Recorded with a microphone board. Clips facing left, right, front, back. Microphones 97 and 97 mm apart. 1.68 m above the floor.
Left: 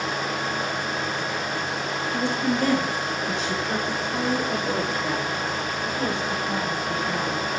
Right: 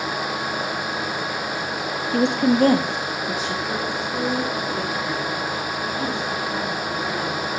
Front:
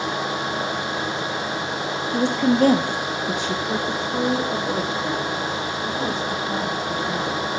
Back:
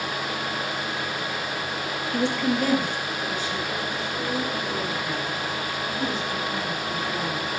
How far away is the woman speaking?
About 0.7 m.